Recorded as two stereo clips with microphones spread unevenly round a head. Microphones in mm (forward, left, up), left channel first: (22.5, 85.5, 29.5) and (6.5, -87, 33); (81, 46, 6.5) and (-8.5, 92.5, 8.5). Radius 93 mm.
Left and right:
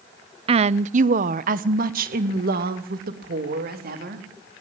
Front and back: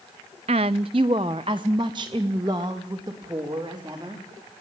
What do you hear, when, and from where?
0.5 s a woman speaking: 155° right, 0.5 m; by 4.2 s 135° right, 3.5 m